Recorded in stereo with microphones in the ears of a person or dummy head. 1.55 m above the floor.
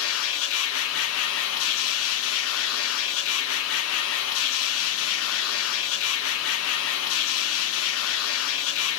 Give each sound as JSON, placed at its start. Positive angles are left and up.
{"t": 0.0, "sound": "a machine running", "side_deg": 80, "distance_m": 1.6}